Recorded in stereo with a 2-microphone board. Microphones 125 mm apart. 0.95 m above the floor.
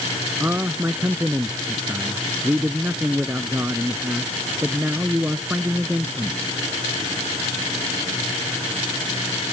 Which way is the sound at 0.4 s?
15° right (ahead or behind).